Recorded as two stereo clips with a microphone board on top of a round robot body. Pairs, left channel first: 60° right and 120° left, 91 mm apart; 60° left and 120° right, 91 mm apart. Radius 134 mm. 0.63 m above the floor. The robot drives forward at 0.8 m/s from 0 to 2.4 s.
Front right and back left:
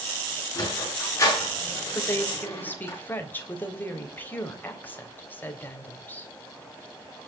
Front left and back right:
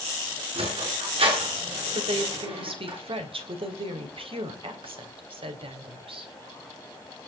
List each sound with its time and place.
0.6 s a sliding door: 115° right, 10 m; by 2.9 s 120° right, 10.5 m
1.9 s a woman speaking: 125° right, 3.5 m; by 6.3 s 130° right, 3.5 m